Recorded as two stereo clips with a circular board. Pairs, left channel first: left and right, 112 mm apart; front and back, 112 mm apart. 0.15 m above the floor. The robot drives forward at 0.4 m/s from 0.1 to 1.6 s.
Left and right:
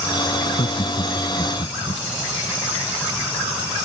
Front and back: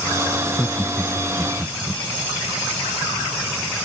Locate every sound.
0.4 s laughter: 80° left; by 2.0 s 85° left